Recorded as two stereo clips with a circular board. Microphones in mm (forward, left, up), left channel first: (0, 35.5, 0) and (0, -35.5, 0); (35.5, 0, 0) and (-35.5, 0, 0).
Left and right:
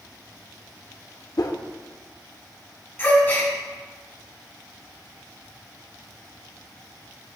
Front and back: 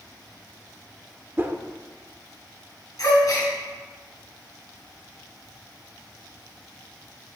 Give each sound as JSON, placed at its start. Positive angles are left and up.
{"t": 1.4, "sound": "a whoosh", "azimuth_deg": 120, "distance_m": 0.7}
{"t": 3.0, "sound": "a gasp", "azimuth_deg": 35, "distance_m": 2.5}